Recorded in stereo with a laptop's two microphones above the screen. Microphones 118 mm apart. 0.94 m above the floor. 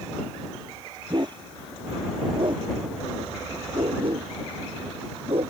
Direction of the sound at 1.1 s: 40° right (ahead or behind).